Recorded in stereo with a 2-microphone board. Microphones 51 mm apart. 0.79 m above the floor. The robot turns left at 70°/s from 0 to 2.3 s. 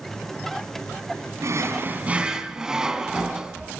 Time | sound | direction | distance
1.4 | a drawer | 105° right | 2.5 m